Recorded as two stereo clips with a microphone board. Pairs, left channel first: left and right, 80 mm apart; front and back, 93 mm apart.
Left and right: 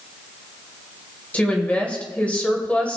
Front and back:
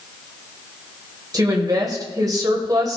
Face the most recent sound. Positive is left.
turn(degrees=155)